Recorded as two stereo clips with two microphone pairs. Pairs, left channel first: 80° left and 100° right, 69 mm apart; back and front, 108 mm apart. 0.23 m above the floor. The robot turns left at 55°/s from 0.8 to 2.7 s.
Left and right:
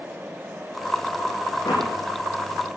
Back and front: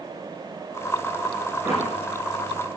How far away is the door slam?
About 9.5 m.